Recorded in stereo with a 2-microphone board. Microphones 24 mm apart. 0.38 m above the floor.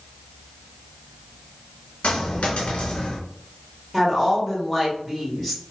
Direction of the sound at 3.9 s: Centre (ahead or behind).